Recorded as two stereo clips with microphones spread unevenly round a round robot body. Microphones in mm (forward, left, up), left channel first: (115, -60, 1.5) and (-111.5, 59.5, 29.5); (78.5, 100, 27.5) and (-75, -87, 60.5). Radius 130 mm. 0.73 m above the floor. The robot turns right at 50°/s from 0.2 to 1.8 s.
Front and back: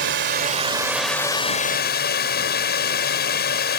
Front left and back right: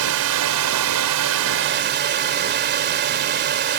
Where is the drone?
160° right; by 3.8 s 80° right.